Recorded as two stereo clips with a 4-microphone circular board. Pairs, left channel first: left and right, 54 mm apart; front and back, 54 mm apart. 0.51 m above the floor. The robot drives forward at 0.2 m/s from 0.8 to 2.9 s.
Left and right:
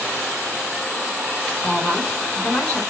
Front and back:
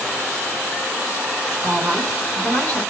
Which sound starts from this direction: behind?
A woman speaking, at 1.6 s.